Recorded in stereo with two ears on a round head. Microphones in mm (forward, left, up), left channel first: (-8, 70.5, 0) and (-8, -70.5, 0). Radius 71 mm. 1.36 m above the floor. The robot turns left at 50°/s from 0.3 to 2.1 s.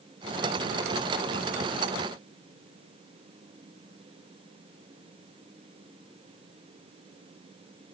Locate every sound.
Only background noise.